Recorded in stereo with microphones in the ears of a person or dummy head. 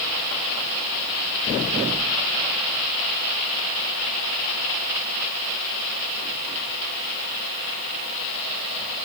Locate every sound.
Only background noise.